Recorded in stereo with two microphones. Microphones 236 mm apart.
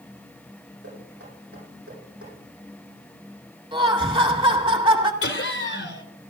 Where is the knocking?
75° right (ahead or behind), 8.5 m.